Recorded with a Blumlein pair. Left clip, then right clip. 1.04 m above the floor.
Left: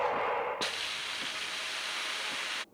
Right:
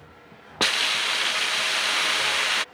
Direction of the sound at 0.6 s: 30° right.